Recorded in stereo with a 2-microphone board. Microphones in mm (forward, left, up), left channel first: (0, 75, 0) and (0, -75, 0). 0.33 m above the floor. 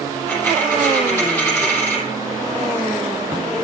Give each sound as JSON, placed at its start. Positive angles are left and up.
{"t": 0.3, "sound": "a dropped coin", "side_deg": 15, "distance_m": 3.5}